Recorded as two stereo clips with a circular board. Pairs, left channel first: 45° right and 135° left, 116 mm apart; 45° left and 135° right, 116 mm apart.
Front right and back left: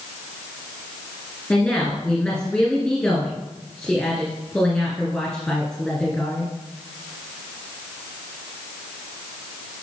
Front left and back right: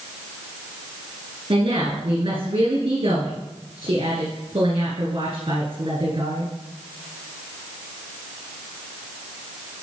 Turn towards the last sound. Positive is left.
turn(degrees=-120)